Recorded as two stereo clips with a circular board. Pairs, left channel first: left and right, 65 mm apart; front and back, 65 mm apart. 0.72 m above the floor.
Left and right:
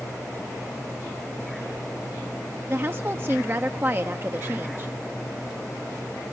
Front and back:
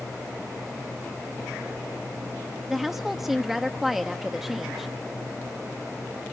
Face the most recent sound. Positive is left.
turn(degrees=-95)